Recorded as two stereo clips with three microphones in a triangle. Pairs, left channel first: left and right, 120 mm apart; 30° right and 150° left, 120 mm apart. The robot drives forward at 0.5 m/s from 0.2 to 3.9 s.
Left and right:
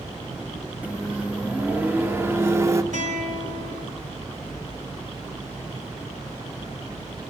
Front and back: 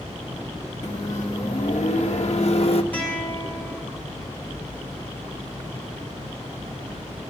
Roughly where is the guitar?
Right.